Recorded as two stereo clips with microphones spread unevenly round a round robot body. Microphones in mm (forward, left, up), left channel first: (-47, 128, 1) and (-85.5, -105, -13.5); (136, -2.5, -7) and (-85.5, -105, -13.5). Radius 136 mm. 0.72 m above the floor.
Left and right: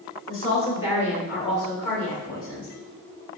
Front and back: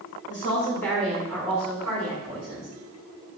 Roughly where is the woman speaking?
Left.